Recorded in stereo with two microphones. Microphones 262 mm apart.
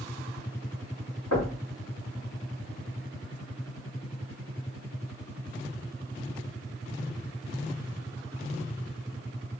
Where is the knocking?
75° left (ahead or behind), 1.2 m.